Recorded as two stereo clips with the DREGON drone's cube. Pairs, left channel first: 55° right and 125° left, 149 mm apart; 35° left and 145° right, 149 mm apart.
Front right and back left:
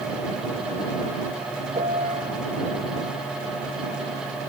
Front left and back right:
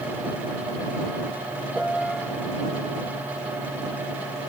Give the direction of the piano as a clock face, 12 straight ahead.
8 o'clock.